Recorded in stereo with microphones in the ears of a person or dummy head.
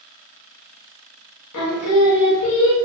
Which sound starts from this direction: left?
Singing, at 1.5 s.